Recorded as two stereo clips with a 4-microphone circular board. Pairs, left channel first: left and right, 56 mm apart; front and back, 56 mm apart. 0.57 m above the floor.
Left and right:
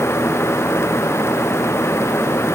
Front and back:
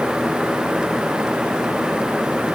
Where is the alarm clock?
I don't hear an alarm clock.